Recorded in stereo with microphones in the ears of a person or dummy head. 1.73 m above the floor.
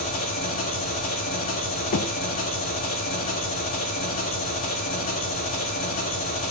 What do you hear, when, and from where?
0.0 s an engine running: 45° left (ahead or behind), 1.4 m
1.9 s knocking: 45° left (ahead or behind), 0.5 m